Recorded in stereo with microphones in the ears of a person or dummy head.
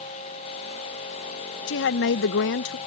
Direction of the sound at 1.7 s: 65° left (ahead or behind).